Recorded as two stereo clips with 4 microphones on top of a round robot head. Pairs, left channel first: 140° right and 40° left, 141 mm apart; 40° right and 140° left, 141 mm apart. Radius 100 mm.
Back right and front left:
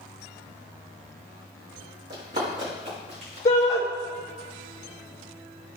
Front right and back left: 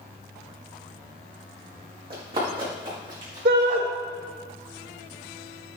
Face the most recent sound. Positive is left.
turn(degrees=160)